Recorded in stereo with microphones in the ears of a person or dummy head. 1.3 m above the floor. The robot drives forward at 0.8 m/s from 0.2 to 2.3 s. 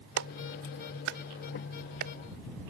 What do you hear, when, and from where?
0.2 s a clap: 70° right (ahead or behind); by 2.1 s 50° right (ahead or behind)